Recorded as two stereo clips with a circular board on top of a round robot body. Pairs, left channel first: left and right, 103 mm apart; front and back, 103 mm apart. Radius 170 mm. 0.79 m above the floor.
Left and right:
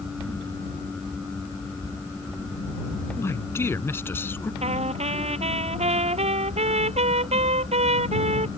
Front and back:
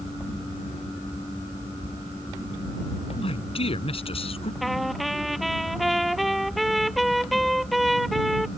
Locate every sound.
3.2 s a man speaking: 25° left; by 4.5 s 20° left
4.6 s a trumpet: 90° right